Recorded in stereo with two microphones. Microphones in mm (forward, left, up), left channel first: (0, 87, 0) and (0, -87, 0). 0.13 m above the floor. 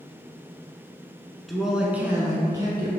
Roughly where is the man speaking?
Centre.